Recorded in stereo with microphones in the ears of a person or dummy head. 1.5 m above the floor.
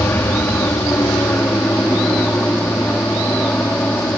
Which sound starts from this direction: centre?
An aircraft, at 0.0 s.